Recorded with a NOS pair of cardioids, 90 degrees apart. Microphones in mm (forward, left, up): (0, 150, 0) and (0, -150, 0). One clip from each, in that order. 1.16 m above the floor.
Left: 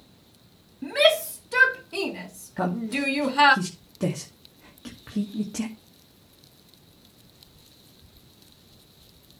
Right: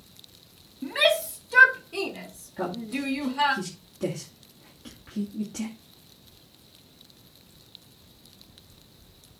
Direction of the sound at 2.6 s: 45° left.